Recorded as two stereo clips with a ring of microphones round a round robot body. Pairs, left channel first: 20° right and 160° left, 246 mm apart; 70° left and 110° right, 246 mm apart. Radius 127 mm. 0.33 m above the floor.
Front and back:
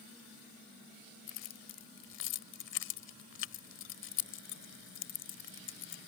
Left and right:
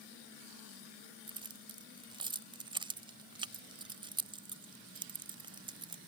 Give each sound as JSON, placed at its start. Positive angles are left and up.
{"t": 1.3, "sound": "keys jangling", "azimuth_deg": -45}